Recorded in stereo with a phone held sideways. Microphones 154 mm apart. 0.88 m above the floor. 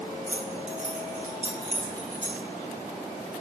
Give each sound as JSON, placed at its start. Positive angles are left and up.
{"t": 0.3, "sound": "keys jangling", "side_deg": -50, "distance_m": 1.3}